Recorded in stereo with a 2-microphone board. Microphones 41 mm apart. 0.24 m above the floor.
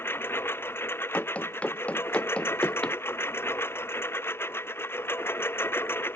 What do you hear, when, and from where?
0.0 s a lawn mower: 75° left (ahead or behind)
1.1 s running footsteps: 35° left (ahead or behind); by 3.0 s 25° left (ahead or behind)